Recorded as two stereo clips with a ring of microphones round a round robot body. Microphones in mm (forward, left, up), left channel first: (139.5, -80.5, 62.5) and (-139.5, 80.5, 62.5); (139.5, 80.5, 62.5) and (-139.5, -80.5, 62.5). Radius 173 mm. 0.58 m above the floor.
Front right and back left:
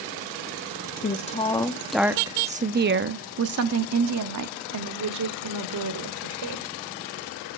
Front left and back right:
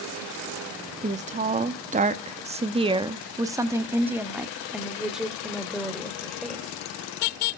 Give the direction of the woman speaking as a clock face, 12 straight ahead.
3 o'clock.